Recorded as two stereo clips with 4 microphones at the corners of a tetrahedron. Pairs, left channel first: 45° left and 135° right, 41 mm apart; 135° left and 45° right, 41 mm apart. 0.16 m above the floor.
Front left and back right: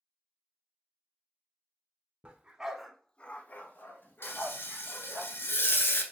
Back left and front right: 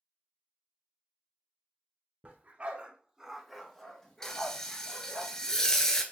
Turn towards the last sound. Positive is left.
turn(degrees=60)